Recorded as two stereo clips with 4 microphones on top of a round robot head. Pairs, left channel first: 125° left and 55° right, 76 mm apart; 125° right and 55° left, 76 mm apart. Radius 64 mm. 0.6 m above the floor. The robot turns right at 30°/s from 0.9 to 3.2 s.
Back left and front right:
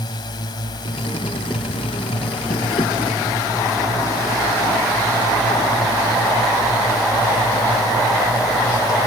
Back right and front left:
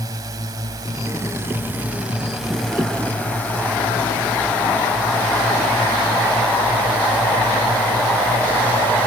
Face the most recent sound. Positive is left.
turn(degrees=165)